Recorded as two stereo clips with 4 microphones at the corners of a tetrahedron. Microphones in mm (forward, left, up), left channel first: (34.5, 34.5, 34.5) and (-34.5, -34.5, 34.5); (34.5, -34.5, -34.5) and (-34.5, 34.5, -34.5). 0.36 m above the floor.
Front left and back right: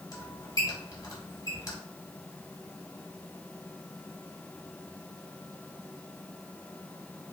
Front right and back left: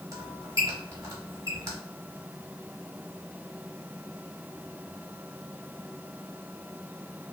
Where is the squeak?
90° left, 1.0 m.